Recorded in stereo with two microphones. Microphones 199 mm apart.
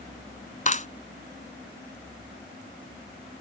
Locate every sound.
0.7 s a clap: 35° left (ahead or behind)